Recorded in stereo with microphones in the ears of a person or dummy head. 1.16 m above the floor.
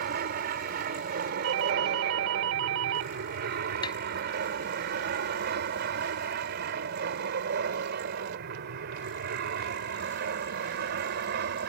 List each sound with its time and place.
0.0 s an aircraft: 55° right (ahead or behind); by 11.7 s 60° right (ahead or behind)
1.4 s a doorbell: 75° right (ahead or behind)
3.8 s tapping: 20° left (ahead or behind)